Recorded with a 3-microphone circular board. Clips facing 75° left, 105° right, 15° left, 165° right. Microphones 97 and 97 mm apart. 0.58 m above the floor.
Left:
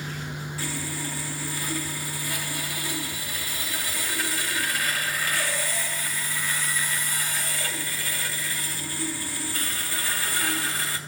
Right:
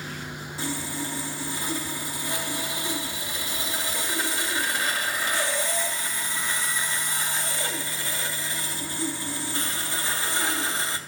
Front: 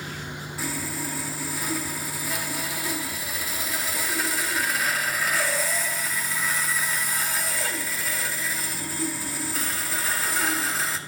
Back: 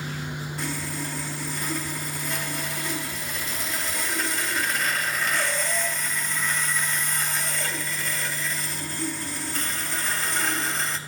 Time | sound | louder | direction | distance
0.6 | sawing | right 4 dB, front 2 dB | 65° right | 0.7 m